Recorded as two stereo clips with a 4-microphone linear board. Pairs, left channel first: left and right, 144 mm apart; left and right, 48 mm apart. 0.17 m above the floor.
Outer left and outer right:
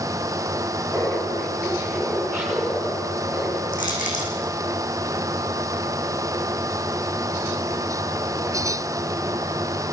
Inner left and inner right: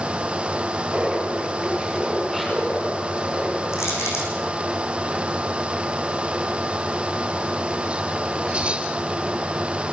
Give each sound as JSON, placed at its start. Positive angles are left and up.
{"t": 0.9, "sound": "laughter", "side_deg": 5, "distance_m": 2.5}
{"t": 3.7, "sound": "crushing", "side_deg": 75, "distance_m": 7.5}